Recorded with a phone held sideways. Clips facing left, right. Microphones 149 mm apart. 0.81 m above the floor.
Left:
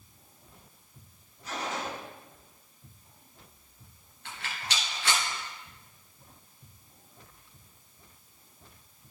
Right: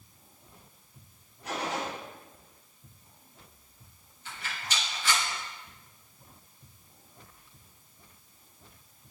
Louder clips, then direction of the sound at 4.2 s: Left 1 dB; 75° left (ahead or behind).